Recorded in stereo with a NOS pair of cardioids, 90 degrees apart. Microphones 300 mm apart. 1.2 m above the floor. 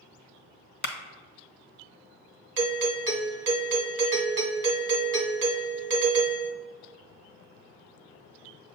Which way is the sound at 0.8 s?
35° left.